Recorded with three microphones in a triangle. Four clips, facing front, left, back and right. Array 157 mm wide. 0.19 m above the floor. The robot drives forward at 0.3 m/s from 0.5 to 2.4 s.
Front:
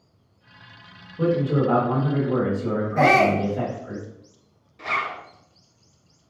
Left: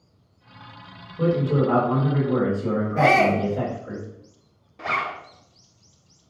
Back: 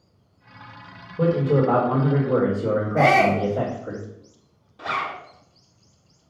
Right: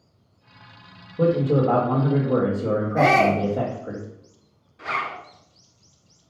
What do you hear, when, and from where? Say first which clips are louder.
1.2 s a man speaking: right 2 dB, back 2 dB; 120° right, 3 m; by 4.0 s 125° right, 3.5 m
3.0 s a shout: even, even; 60° right, 3 m
4.8 s a zipper: left 1 dB, even; 105° left, 1.4 m